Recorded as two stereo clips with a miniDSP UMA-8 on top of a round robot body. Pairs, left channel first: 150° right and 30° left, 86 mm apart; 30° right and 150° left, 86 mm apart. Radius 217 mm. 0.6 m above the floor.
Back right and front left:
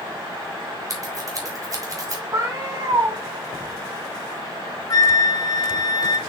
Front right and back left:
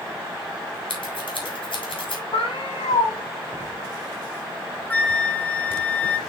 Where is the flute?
105° right, 1.0 m.